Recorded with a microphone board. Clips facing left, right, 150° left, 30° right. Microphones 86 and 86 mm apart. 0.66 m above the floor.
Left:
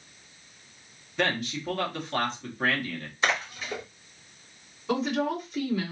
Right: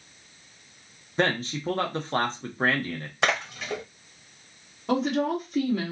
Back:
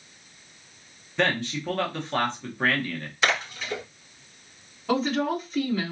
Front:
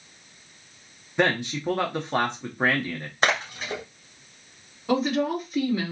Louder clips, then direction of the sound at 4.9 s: Right 2 dB, front 1 dB; 110° right.